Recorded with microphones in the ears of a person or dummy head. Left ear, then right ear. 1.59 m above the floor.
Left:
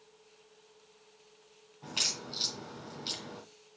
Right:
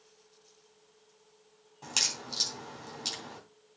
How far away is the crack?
About 3 m.